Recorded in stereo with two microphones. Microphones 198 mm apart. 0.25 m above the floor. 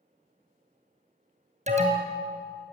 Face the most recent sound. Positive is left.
turn(degrees=-35)  # may be behind; listen again after turning